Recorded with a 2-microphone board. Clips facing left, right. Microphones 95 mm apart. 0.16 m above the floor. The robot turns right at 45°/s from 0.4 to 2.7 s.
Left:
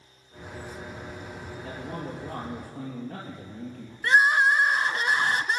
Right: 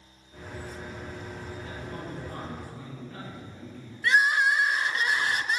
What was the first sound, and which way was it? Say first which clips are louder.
A man speaking: left 6 dB; 80° left.